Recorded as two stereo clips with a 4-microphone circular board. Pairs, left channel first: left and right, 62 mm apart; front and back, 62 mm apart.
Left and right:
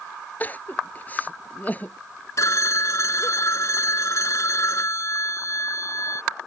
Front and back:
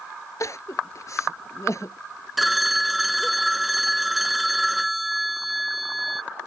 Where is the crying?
30° left.